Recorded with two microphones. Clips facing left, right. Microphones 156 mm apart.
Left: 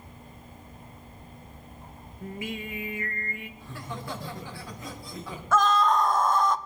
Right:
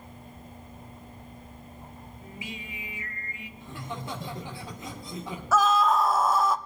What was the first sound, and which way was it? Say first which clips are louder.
Singing: left 8 dB; 55° left (ahead or behind).